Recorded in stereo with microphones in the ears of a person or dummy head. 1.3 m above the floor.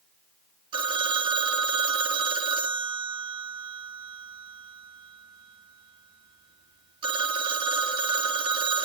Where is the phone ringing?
35° right (ahead or behind), 1.8 m.